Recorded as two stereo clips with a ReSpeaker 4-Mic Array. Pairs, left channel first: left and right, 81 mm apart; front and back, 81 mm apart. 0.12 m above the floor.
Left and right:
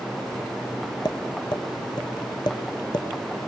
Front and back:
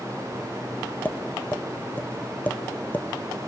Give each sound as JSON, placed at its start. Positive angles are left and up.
{"t": 1.1, "sound": "tapping", "azimuth_deg": 70, "distance_m": 1.2}